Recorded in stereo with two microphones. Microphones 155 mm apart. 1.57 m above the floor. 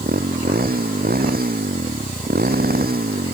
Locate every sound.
0.0 s a motorcycle: 80° right